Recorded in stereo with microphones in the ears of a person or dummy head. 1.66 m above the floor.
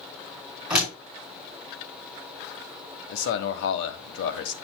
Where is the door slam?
Centre (ahead or behind), 4.5 m.